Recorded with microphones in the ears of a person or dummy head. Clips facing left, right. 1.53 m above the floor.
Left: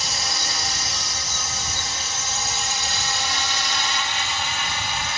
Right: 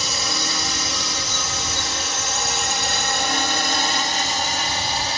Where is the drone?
75° right (ahead or behind); by 5.2 s 25° right (ahead or behind).